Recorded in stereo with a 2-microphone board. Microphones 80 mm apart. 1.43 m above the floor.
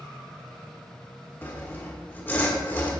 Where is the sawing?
25° left (ahead or behind), 1.4 m.